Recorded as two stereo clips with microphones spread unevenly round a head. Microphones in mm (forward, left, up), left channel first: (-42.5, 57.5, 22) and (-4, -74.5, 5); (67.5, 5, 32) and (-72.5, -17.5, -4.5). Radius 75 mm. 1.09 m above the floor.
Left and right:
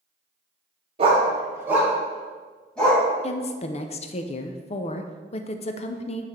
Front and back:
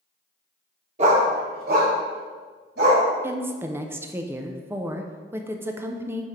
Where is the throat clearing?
I don't hear throat clearing.